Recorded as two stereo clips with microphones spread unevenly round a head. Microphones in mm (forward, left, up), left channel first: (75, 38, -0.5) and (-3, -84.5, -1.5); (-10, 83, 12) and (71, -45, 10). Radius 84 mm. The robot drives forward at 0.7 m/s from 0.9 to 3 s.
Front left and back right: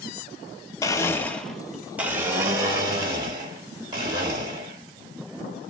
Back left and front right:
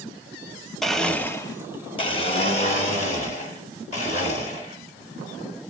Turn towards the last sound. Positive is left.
turn(degrees=170)